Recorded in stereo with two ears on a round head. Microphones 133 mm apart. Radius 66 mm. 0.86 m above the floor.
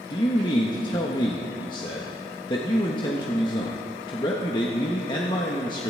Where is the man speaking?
30° left (ahead or behind), 1.2 m.